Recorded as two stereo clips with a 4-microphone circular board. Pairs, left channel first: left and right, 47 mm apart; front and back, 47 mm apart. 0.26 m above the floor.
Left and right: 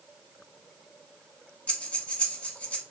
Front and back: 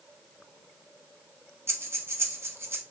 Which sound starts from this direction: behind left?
Breathing, at 1.7 s.